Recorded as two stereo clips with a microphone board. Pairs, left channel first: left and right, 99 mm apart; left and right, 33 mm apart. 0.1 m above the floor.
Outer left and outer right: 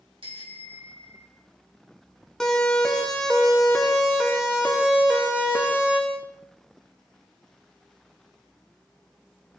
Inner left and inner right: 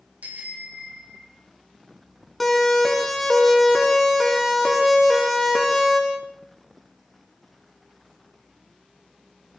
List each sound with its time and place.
0.2 s a bicycle bell: 60° right (ahead or behind), 5.5 m
2.4 s a siren: 5° left (ahead or behind), 6.5 m; by 6.0 s 15° right (ahead or behind), 7 m